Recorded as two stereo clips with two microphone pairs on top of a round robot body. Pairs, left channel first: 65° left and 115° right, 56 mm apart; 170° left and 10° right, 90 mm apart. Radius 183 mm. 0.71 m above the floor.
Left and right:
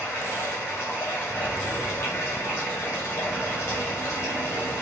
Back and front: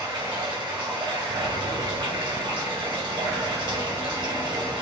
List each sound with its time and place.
0.0 s running water: 20° left, 2 m